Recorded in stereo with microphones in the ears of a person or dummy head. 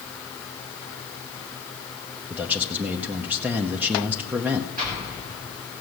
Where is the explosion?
40° right (ahead or behind), 3.5 m.